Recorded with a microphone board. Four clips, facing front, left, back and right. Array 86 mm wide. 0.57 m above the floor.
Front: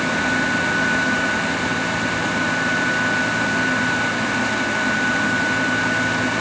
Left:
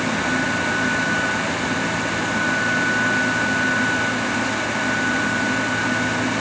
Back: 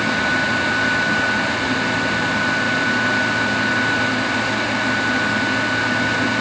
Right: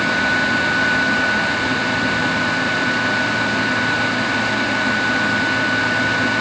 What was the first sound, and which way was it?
Only background noise.